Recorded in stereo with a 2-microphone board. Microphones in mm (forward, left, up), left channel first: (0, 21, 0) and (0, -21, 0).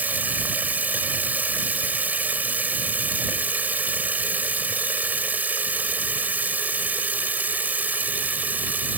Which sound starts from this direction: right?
Running water, at 0.0 s.